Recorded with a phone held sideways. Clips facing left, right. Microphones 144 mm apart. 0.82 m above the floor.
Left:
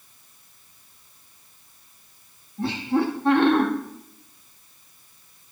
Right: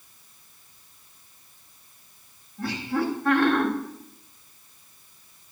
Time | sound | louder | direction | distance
2.6 | laughter | left 4 dB | 25° left (ahead or behind) | 1.6 m